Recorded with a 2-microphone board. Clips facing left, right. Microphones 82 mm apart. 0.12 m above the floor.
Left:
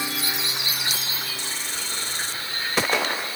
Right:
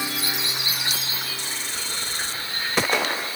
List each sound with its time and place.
Only background noise.